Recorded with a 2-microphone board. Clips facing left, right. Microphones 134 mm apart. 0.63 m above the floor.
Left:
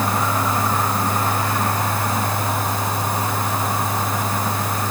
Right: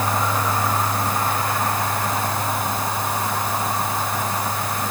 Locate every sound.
Only background noise.